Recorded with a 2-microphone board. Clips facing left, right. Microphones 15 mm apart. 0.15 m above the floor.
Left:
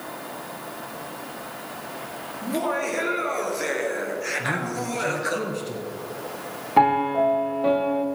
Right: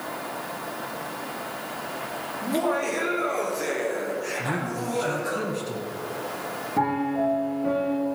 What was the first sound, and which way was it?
Laughter, centre (ahead or behind).